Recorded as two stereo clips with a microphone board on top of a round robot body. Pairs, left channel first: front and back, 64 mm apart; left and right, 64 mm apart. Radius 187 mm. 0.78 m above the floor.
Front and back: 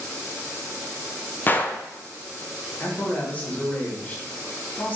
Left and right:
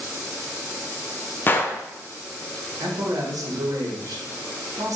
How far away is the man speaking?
About 1.1 m.